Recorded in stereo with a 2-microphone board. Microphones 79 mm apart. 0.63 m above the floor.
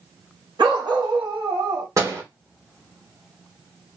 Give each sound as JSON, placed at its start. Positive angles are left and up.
{"t": 0.6, "sound": "a dog barking", "side_deg": -80, "distance_m": 1.8}
{"t": 2.0, "sound": "a door slam", "side_deg": -40, "distance_m": 1.5}